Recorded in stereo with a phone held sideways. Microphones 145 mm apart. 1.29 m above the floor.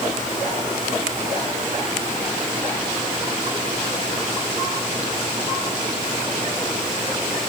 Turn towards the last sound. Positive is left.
No sound to turn to.